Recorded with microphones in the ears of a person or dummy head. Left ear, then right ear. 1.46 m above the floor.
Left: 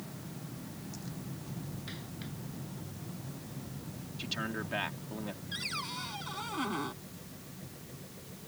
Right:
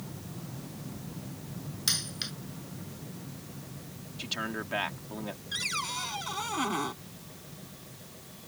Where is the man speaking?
10° right (ahead or behind).